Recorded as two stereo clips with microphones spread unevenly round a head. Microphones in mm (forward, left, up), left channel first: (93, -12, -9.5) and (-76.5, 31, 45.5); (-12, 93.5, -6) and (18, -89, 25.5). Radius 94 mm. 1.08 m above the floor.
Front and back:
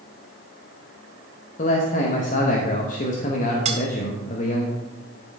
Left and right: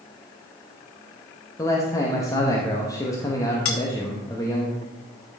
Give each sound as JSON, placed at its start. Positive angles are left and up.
{"t": 1.6, "sound": "a man speaking", "azimuth_deg": 25, "distance_m": 1.0}
{"t": 3.6, "sound": "cutlery clinking", "azimuth_deg": 115, "distance_m": 1.0}